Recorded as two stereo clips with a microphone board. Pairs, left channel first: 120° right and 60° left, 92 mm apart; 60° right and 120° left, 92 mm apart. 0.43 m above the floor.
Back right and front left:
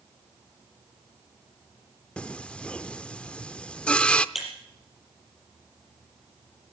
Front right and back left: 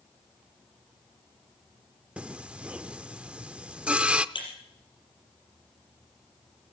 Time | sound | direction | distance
2.2 | singing | straight behind | 0.5 m
4.3 | breaking glass | 30° right | 5 m